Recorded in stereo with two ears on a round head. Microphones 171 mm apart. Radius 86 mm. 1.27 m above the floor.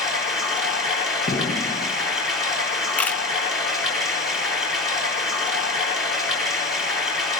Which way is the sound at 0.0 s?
Centre (ahead or behind).